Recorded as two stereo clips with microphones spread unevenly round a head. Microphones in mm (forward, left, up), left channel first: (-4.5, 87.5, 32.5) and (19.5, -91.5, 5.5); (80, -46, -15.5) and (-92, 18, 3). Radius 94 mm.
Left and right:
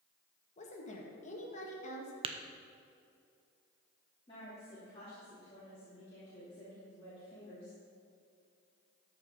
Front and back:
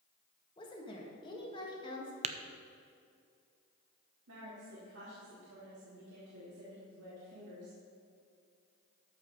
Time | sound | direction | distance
0.6 | a woman speaking | 45° left | 1.8 m
2.2 | tapping | 145° right | 0.5 m
4.3 | a woman speaking | 160° left | 2.5 m